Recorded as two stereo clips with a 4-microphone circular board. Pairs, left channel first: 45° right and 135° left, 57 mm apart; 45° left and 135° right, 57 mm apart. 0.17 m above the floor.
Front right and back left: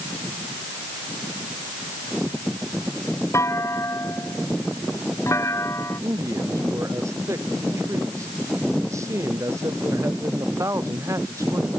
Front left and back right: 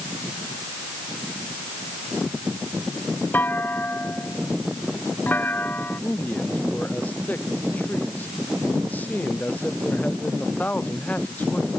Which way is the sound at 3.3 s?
10° right.